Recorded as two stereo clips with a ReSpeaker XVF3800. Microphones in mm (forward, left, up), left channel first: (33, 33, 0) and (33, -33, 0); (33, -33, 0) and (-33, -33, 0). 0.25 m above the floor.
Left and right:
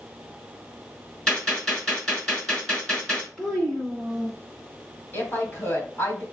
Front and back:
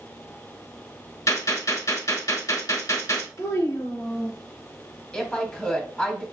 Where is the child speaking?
5° left, 1.9 m.